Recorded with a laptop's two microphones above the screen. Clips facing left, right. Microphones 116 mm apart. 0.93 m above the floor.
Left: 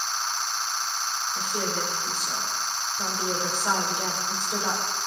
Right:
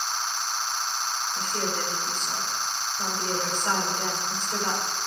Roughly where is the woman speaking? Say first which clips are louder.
Left 1 dB; centre.